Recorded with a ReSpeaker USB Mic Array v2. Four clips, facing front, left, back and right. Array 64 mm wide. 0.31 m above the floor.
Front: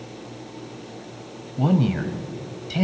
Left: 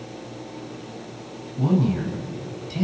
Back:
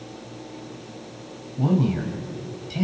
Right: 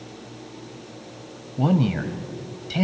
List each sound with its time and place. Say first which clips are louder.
1.6 s a man speaking: even, front 1 dB; 55° right, 1.4 m